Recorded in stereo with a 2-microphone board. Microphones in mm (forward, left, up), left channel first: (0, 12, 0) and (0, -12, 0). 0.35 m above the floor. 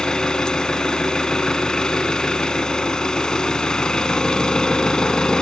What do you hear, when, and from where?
0.0 s an engine running: 45° left (ahead or behind), 0.9 m